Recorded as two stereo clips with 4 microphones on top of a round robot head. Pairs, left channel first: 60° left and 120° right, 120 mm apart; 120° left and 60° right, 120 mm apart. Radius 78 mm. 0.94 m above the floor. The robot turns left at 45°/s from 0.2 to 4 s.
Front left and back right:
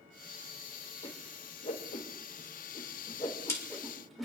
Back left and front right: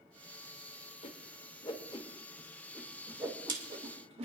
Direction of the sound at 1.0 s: 100° left.